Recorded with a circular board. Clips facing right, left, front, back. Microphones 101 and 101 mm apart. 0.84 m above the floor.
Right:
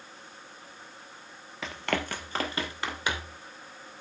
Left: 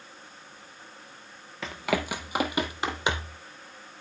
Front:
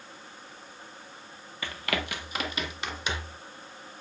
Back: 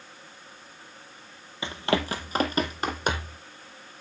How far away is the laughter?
No laughter in this recording.